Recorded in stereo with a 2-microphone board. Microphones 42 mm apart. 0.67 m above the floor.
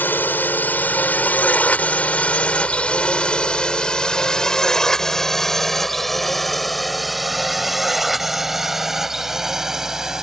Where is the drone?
50° left (ahead or behind); by 10.2 s 10° right (ahead or behind).